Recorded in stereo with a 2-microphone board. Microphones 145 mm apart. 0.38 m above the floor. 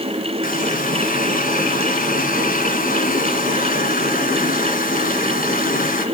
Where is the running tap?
75° left (ahead or behind), 2.5 m.